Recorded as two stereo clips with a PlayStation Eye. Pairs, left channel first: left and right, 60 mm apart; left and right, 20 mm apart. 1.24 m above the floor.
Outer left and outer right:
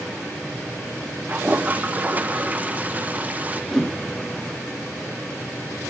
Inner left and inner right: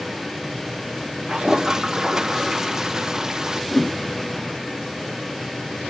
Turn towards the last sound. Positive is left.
turn(degrees=5)  # may be behind; listen again after turning